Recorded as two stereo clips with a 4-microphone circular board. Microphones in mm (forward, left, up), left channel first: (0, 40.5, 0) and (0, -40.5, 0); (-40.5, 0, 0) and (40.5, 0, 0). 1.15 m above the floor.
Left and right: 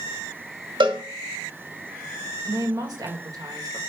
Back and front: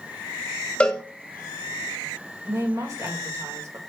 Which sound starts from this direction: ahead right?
A woman speaking, at 2.5 s.